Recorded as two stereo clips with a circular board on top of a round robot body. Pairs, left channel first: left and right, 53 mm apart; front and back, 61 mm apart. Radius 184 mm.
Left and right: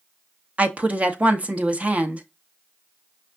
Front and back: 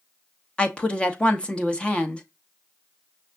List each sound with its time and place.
0.6 s a woman speaking: 55° right, 1.2 m